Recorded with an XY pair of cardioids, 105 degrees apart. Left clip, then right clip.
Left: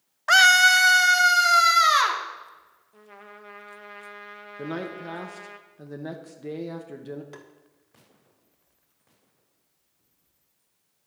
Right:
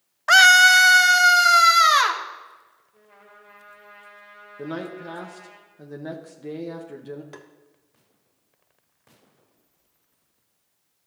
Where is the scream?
15° right, 0.6 m; by 2.2 s 20° right, 1.9 m.